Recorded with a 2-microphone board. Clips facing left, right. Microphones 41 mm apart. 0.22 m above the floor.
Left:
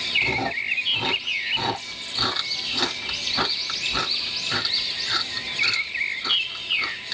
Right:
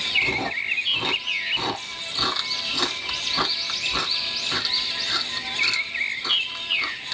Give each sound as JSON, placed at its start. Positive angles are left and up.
{"t": 0.2, "sound": "chewing", "side_deg": 10, "distance_m": 1.7}